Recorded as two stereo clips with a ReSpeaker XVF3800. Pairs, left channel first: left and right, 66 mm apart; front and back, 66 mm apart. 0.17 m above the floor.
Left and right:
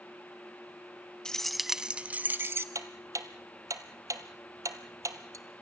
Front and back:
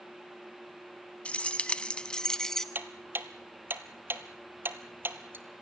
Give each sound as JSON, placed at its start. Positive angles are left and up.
{"t": 1.2, "sound": "keys jangling", "azimuth_deg": 30, "distance_m": 0.8}
{"t": 2.8, "sound": "ticking", "azimuth_deg": -125, "distance_m": 1.1}